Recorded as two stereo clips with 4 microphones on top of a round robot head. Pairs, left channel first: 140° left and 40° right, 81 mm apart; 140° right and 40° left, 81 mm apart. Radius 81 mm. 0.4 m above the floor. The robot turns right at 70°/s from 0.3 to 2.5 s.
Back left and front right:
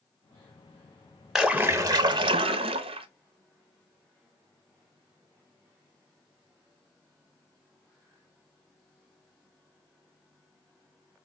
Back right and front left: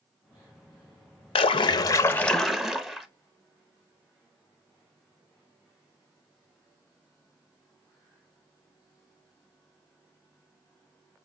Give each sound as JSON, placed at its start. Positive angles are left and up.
{"t": 1.4, "sound": "a splash", "azimuth_deg": -125, "distance_m": 0.5}